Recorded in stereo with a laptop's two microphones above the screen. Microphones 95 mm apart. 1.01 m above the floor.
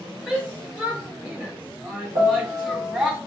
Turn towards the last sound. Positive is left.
turn(degrees=-55)  # may be behind; listen again after turning